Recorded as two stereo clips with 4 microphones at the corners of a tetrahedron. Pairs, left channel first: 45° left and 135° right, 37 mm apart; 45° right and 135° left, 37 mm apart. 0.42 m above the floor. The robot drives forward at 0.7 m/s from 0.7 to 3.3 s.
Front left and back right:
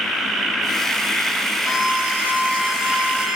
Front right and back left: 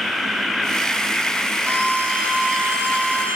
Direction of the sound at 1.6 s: 155° left.